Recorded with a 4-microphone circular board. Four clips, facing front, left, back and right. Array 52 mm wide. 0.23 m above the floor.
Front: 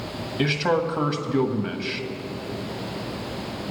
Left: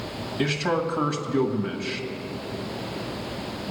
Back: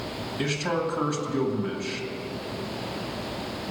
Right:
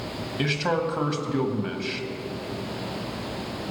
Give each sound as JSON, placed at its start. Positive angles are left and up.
{"t": 0.4, "sound": "a man speaking", "azimuth_deg": -20, "distance_m": 1.2}